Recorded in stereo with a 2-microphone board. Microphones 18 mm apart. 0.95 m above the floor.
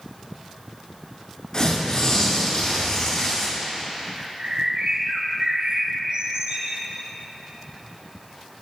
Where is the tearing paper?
40° left (ahead or behind), 6.5 m.